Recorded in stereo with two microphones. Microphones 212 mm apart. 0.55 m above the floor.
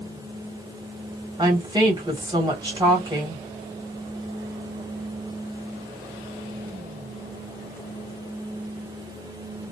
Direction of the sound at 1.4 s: 20° right (ahead or behind).